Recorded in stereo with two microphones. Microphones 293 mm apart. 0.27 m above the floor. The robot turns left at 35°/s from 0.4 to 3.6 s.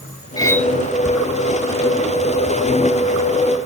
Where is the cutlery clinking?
10° left (ahead or behind); by 0.7 s centre (ahead or behind).